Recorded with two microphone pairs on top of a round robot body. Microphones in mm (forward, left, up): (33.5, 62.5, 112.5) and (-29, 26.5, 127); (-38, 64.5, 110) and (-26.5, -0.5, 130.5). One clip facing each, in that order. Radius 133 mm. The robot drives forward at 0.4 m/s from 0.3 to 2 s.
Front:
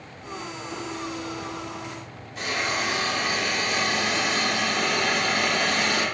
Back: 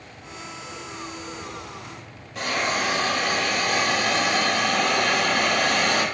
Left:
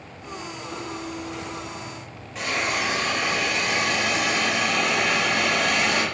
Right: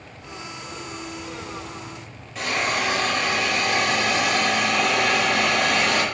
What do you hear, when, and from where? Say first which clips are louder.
2.4 s a hiss: back 2 dB, right 2 dB; 170° right, 1.2 m